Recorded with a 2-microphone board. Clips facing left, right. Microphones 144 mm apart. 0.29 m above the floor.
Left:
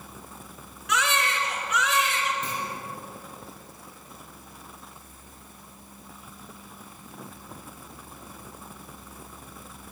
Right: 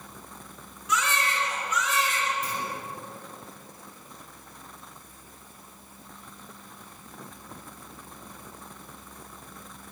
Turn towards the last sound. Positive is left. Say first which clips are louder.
# even
turn(degrees=25)  # may be behind; listen again after turning